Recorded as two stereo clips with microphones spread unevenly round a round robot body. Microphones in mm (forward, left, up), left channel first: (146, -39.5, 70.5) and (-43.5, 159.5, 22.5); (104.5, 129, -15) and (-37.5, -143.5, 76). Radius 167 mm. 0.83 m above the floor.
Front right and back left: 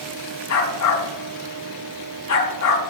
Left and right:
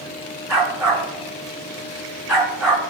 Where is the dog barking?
30° right, 5 m.